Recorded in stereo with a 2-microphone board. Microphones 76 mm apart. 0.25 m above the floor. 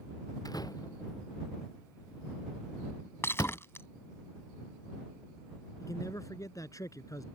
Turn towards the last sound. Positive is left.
turn(degrees=50)  # may be behind; listen again after turning